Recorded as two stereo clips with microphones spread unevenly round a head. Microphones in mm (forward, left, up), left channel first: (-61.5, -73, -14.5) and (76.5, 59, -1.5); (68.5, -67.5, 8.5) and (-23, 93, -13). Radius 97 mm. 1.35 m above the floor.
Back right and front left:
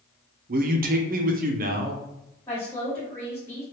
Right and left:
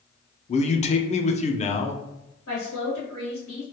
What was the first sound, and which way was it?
A man speaking, 5° right.